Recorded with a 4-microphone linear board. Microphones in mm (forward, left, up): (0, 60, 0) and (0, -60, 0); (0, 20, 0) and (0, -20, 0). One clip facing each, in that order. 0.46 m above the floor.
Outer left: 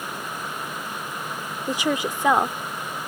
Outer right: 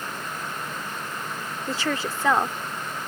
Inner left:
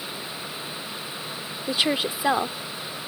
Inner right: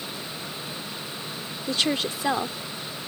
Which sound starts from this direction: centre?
A woman speaking, at 1.7 s.